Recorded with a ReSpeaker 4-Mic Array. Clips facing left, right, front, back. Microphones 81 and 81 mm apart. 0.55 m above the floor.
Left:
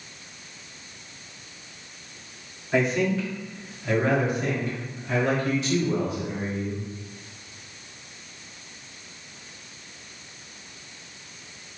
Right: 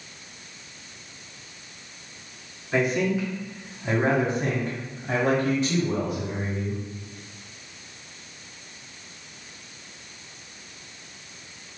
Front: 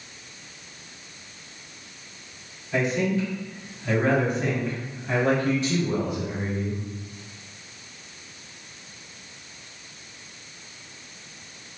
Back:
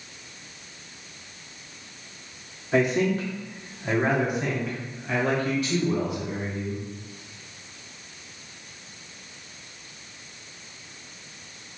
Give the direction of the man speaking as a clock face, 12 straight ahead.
6 o'clock.